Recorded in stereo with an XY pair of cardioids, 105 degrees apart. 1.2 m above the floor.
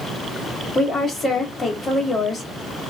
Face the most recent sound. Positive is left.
turn(degrees=30)